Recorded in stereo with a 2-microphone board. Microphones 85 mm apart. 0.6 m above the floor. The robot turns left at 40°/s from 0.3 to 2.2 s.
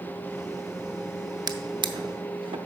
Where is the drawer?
50° right (ahead or behind), 0.6 m; by 2.6 s 80° right, 0.6 m.